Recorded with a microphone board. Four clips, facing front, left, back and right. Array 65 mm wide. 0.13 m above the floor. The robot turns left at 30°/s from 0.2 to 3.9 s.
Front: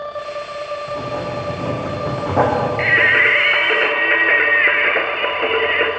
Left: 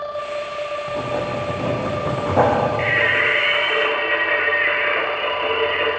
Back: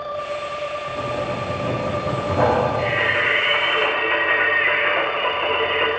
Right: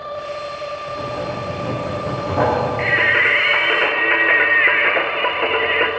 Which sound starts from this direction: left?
Writing, at 0.9 s.